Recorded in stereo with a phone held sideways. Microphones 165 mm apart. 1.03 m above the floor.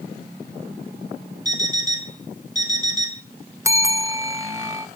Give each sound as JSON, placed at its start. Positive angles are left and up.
{"t": 1.4, "sound": "an alarm clock", "side_deg": 45, "distance_m": 1.4}
{"t": 3.6, "sound": "a bell", "side_deg": -15, "distance_m": 0.8}